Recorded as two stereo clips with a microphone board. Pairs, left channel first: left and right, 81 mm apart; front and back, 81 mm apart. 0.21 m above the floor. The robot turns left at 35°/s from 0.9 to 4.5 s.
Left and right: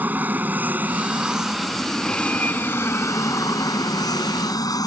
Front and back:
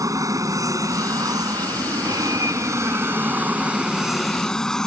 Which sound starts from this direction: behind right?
An aircraft, at 0.0 s.